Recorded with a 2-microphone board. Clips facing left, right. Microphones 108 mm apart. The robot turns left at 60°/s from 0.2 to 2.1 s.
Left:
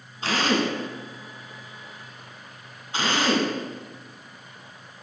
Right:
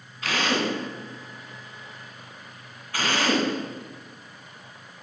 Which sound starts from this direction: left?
A drill, at 0.2 s.